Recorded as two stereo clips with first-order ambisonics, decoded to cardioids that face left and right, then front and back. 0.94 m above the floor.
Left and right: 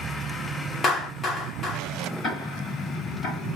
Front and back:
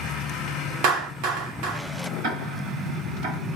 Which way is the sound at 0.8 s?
160° left.